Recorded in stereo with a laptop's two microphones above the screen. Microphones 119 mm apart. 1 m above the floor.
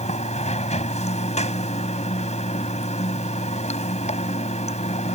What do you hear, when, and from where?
0.0 s running water: 80° left